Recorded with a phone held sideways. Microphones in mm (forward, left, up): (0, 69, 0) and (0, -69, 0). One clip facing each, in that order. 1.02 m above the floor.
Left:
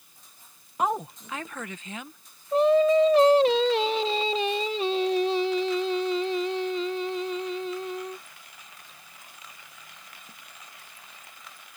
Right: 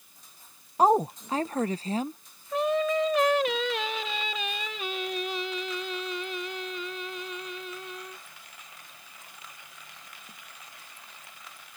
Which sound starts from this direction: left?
Singing, at 2.5 s.